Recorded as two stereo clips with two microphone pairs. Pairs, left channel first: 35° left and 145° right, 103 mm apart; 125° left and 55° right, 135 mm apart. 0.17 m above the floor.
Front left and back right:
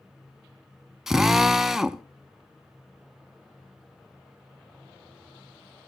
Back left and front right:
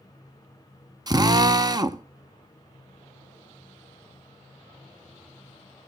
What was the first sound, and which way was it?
A drill, 65° right.